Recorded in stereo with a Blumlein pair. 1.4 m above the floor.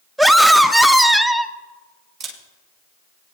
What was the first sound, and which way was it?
A scream, 5° right.